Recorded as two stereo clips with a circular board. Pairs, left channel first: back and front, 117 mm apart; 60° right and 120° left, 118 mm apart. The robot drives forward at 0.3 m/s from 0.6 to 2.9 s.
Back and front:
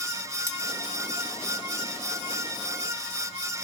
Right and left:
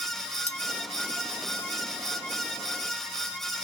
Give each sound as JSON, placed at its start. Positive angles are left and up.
{"t": 0.5, "sound": "cutlery clinking", "azimuth_deg": -70, "distance_m": 1.3}